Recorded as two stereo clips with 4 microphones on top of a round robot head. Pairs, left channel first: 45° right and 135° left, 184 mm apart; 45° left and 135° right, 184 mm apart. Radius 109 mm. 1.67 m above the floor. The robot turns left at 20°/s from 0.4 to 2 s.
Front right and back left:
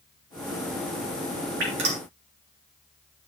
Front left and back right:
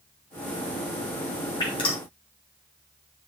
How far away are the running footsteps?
No running footsteps in this recording.